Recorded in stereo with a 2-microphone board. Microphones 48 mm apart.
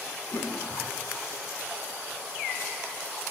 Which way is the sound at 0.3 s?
80° left.